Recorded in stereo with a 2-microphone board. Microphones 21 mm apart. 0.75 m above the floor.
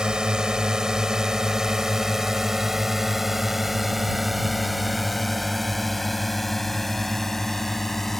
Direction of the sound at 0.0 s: 45° right (ahead or behind).